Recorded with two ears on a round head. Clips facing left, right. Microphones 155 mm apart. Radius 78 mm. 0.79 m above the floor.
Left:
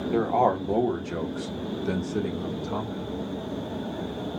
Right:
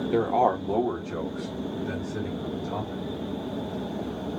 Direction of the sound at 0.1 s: 10° right (ahead or behind).